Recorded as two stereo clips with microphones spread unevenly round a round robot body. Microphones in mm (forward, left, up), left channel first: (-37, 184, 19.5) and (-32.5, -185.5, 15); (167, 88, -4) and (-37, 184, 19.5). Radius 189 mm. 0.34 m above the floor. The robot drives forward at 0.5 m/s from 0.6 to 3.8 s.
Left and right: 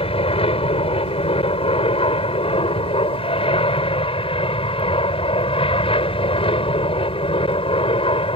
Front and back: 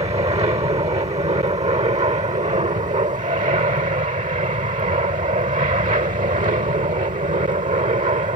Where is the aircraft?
140° left; by 8.4 s 150° left.